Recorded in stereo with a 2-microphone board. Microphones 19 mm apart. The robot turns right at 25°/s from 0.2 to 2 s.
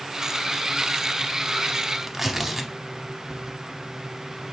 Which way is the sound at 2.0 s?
20° right (ahead or behind).